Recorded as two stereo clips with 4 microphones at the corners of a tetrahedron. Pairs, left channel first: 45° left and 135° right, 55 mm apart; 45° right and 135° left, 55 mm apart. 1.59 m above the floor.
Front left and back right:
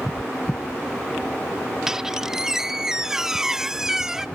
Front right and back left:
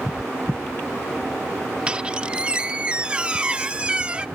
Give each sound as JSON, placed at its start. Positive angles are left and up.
{"t": 1.9, "sound": "a squeak", "azimuth_deg": 160}